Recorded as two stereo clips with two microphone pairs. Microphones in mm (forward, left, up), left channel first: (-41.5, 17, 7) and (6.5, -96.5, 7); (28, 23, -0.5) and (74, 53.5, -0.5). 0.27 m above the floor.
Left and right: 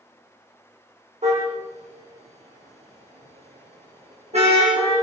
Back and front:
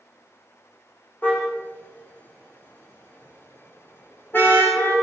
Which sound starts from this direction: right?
A car horn, at 1.2 s.